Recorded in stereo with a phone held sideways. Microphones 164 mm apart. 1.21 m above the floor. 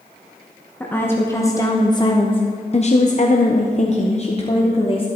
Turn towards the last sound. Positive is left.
turn(degrees=35)  # may be behind; listen again after turning